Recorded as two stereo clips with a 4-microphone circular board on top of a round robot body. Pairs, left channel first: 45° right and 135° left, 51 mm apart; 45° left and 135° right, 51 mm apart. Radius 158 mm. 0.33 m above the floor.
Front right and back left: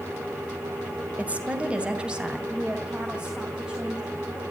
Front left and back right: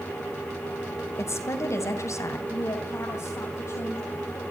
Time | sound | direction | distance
1.2 | a woman speaking | 70° left | 3 m
2.5 | a woman speaking | 60° left | 3 m